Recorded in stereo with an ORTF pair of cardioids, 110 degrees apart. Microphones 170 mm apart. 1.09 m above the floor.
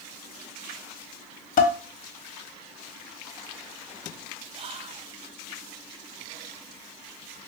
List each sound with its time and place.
1.6 s dishes clattering: 55° left, 1.1 m
4.5 s whispering: 35° right, 0.6 m